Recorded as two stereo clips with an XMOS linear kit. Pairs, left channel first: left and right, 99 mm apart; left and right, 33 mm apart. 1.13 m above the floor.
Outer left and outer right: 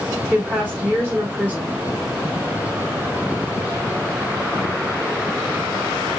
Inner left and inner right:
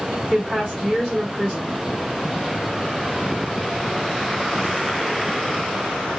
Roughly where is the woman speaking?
Centre.